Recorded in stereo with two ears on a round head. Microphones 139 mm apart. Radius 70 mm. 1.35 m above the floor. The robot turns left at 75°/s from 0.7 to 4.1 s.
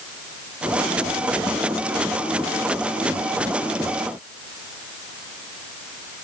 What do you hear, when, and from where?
Only background noise.